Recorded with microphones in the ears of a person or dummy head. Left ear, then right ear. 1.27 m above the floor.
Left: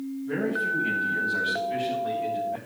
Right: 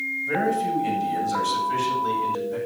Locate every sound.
0.2 s a man speaking: 55° right (ahead or behind), 8.5 m; by 2.6 s 60° right (ahead or behind), 9.5 m